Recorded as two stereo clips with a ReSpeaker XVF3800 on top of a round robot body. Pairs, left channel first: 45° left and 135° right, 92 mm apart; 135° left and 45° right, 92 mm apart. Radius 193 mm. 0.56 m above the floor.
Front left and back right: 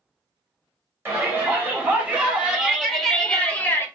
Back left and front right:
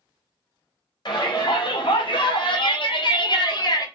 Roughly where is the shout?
Behind.